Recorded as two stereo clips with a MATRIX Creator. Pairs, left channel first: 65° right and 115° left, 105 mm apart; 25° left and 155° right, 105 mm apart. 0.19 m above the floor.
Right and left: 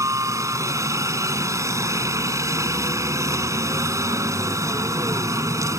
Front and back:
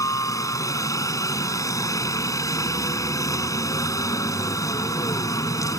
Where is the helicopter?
65° left.